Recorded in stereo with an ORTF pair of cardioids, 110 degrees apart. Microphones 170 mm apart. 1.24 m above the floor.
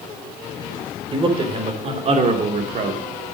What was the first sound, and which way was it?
A man speaking, 30° right.